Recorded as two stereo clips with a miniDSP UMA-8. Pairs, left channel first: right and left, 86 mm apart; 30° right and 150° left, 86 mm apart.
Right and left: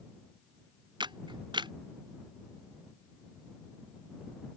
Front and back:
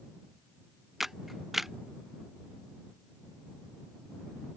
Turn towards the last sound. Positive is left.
turn(degrees=60)